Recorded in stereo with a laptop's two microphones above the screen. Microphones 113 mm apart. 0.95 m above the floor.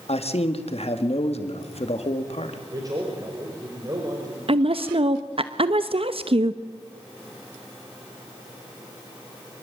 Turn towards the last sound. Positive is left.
turn(degrees=-60)  # may be behind; listen again after turning